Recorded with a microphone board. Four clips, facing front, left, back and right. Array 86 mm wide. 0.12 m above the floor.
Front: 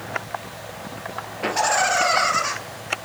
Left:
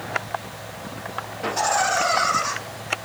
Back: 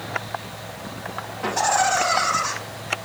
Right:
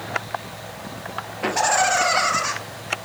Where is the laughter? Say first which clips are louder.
Right 2 dB, even; 45° right, 2.5 m.